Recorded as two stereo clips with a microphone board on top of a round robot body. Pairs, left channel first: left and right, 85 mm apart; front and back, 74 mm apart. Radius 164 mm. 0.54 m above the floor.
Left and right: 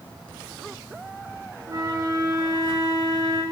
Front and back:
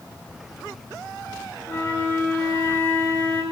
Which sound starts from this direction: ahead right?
A flute, at 1.7 s.